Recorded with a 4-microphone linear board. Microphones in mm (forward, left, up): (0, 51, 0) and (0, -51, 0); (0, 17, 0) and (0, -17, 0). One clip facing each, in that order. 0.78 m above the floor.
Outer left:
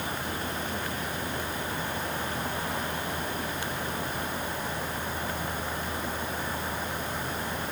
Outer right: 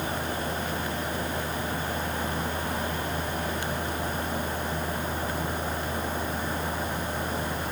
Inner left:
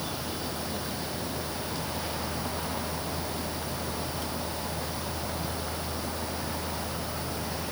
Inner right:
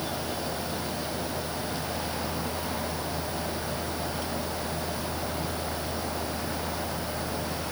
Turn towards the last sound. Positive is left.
No sound to turn to.